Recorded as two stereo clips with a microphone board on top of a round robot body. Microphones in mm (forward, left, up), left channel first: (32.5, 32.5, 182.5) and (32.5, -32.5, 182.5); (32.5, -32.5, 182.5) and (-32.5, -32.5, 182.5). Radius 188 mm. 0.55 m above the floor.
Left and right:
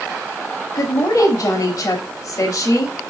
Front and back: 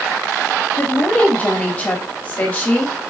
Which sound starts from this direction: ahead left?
A woman speaking, at 0.8 s.